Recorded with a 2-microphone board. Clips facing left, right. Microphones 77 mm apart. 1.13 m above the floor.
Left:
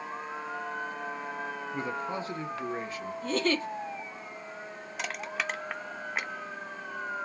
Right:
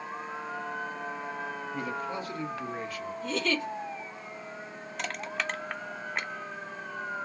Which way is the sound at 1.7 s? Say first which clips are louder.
Left 1 dB; 25° left (ahead or behind).